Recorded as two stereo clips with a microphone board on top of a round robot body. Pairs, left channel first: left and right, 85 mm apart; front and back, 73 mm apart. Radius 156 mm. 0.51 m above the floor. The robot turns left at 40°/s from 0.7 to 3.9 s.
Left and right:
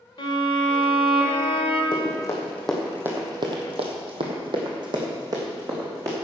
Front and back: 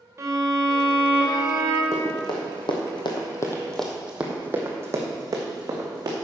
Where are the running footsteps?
55° left, 2.5 m; by 6.2 s 145° right, 3.5 m.